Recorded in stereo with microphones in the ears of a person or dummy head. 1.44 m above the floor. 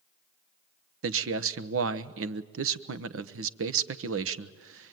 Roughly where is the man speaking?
Right.